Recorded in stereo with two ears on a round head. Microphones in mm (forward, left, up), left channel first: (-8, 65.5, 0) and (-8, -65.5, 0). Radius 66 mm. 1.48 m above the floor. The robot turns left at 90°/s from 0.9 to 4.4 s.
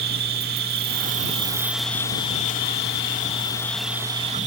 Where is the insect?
100° right; by 4.5 s 55° right.